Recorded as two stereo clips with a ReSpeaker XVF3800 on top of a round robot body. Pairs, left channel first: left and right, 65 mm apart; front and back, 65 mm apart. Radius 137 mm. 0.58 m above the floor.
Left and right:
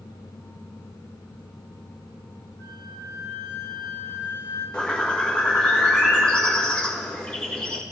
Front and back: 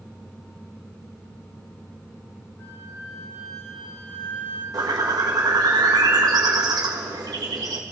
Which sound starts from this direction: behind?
A bird, at 4.7 s.